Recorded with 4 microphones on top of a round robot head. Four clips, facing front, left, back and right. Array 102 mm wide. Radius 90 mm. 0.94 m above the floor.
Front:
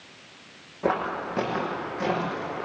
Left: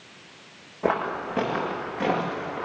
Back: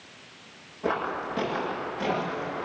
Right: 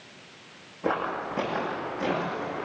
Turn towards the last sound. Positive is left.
turn(degrees=65)